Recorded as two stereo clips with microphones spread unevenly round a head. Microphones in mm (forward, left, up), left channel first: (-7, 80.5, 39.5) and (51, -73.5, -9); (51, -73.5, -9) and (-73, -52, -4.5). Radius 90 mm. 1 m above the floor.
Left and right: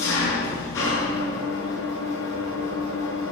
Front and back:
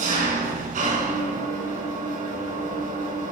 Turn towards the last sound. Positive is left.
turn(degrees=180)